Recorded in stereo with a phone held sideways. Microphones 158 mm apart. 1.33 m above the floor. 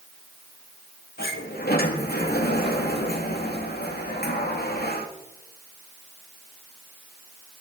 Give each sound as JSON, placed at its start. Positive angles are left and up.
{"t": 1.2, "sound": "a sliding door", "side_deg": 80, "distance_m": 1.8}